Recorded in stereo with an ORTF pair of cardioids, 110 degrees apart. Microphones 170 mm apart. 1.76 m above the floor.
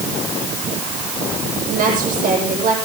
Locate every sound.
1.7 s a woman speaking: 55° right, 8.5 m